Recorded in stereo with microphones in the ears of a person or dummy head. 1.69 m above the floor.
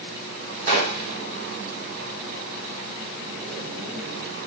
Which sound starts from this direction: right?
A gunshot, at 0.7 s.